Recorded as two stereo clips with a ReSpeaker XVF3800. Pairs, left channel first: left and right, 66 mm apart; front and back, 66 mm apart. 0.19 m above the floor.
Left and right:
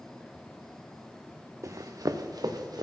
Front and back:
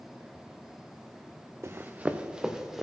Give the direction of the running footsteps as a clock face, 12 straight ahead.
4 o'clock.